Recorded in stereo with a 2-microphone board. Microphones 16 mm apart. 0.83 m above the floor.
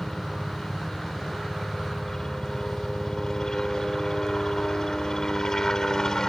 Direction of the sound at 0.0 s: 35° left (ahead or behind).